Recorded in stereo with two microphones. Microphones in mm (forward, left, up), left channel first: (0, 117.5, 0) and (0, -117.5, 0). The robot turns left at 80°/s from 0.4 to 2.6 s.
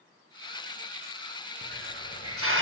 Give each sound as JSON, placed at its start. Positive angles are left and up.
{"t": 1.6, "sound": "a hiss", "azimuth_deg": -45, "distance_m": 1.2}